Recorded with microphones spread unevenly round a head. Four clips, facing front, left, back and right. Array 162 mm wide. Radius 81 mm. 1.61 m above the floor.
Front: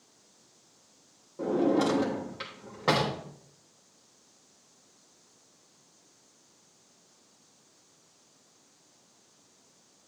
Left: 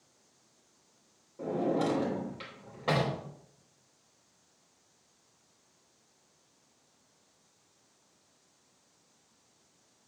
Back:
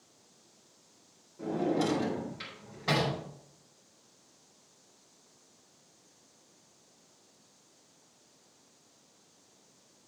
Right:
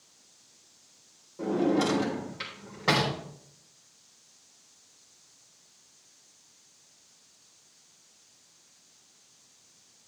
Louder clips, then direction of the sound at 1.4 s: Right 4 dB, front 5 dB; 10° right.